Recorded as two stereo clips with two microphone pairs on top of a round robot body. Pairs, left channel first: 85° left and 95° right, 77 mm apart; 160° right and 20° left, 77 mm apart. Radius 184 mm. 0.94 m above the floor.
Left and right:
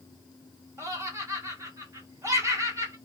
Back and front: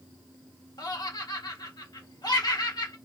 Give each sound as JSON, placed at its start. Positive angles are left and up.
{"t": 0.8, "sound": "laughter", "azimuth_deg": -145, "distance_m": 1.6}